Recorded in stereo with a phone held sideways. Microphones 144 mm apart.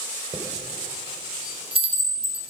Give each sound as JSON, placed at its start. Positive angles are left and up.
{"t": 0.3, "sound": "a chime", "side_deg": -40, "distance_m": 4.5}